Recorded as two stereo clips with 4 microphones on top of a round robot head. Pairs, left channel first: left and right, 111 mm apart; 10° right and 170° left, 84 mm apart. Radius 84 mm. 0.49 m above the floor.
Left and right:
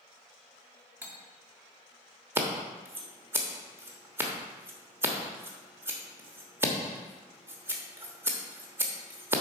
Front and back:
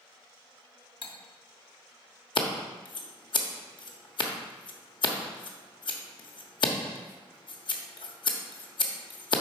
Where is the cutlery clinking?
15° right, 1.2 m.